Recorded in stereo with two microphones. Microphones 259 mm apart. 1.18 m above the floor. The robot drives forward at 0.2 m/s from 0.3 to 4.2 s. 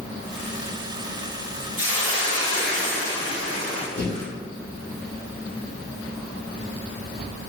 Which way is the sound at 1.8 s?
55° right (ahead or behind).